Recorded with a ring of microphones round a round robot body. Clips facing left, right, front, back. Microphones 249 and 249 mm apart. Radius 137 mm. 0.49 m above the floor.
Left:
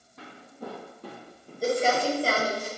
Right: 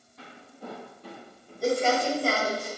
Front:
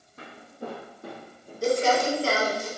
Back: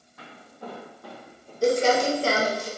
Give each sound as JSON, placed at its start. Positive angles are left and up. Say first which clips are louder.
{"t": 0.2, "sound": "footsteps", "louder": "left 3 dB, front 4 dB", "azimuth_deg": 60, "distance_m": 1.4}
{"t": 1.6, "sound": "crumpling", "louder": "even, back 2 dB", "azimuth_deg": 160, "distance_m": 1.0}